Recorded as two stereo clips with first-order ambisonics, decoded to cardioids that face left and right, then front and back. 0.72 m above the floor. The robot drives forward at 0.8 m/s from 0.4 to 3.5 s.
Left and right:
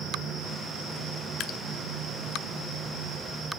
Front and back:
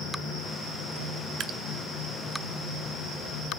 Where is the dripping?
130° left, 0.7 m; by 1.6 s 140° left, 0.8 m.